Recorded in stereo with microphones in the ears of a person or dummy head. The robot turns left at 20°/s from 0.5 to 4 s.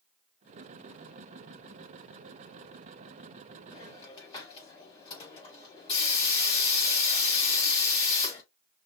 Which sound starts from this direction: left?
A hiss, at 3.7 s.